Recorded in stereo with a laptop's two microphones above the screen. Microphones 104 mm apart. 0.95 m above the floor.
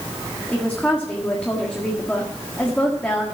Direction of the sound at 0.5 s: 10° left (ahead or behind).